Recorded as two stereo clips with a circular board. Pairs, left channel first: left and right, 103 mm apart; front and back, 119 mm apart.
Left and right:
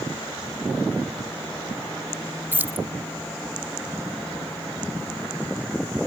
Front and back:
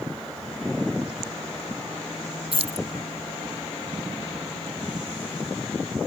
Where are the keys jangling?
160° right.